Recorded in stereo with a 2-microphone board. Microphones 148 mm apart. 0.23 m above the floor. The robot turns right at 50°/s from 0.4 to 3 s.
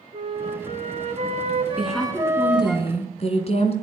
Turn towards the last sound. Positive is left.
turn(degrees=55)